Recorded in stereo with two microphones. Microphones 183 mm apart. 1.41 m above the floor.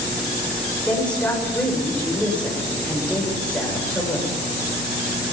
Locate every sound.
0.9 s a woman speaking: 5° left (ahead or behind), 6 m